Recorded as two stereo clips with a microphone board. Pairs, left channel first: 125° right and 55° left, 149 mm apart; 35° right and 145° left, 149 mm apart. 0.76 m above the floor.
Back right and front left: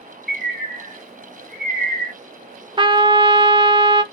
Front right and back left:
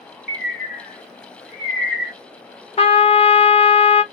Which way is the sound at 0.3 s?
55° left.